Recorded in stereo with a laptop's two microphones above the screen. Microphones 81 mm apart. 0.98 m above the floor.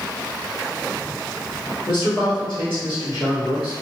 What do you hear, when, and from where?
1.9 s a man speaking: 65° left (ahead or behind), 1.9 m